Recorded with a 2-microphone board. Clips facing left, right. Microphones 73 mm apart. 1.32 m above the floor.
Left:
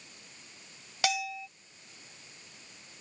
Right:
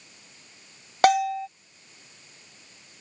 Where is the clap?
No clap in this recording.